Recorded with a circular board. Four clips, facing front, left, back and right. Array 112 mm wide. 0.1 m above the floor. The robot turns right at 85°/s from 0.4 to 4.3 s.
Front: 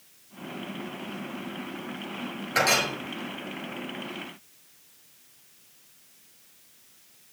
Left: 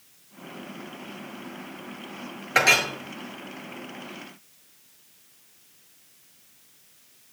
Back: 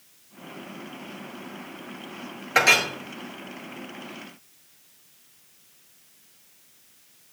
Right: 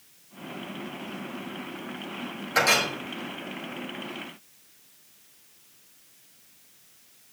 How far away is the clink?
About 1.3 m.